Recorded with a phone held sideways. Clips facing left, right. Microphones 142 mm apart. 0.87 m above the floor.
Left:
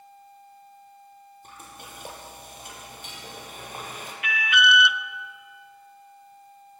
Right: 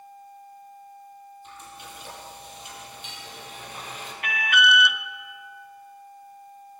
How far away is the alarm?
About 0.8 m.